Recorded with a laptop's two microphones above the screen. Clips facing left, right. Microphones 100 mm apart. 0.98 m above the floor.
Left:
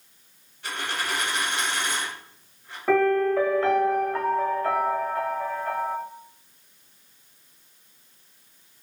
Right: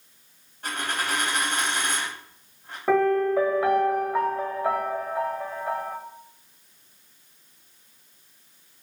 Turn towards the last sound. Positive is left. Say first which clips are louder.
# even
turn(degrees=-10)  # may be behind; listen again after turning